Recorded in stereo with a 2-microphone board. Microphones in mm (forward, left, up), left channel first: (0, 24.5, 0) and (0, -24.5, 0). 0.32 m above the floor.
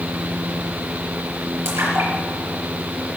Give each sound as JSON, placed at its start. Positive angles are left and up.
{"t": 1.6, "sound": "a splash", "side_deg": -65, "distance_m": 4.5}